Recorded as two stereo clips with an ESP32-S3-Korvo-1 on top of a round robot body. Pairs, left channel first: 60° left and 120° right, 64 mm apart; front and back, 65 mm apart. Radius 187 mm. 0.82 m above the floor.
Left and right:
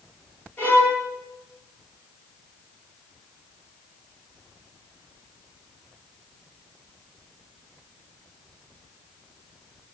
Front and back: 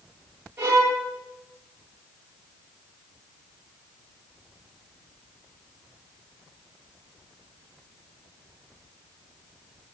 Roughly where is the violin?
Behind left.